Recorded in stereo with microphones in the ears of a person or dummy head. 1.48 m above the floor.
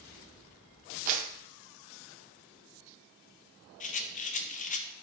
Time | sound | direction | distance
1.1 | a clap | 40° right (ahead or behind) | 0.8 m
3.8 | a rattle | 35° left (ahead or behind) | 0.6 m